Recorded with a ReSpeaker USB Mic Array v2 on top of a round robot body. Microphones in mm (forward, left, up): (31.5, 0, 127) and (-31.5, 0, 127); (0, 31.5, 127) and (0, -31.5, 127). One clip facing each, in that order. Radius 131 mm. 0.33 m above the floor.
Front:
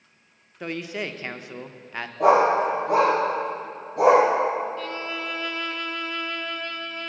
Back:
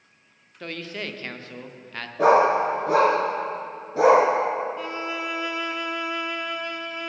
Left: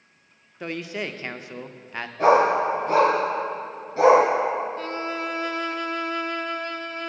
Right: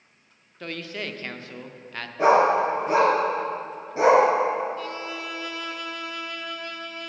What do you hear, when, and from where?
0.6 s a man speaking: 45° left, 0.8 m
2.2 s a dog barking: 165° right, 3 m
4.8 s a violin: 110° left, 0.5 m